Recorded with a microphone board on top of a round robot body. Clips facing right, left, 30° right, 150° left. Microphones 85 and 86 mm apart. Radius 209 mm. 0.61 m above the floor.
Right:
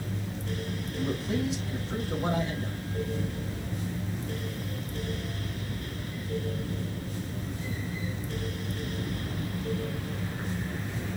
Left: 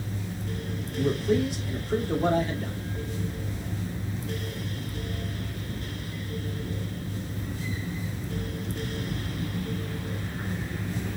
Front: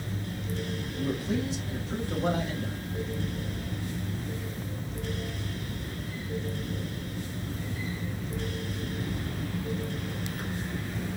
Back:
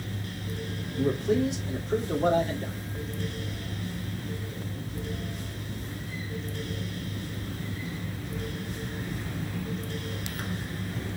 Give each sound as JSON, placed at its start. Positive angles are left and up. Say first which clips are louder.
{"t": 0.9, "sound": "a man speaking", "louder": "left 6 dB, back 6 dB", "azimuth_deg": 125, "distance_m": 3.0}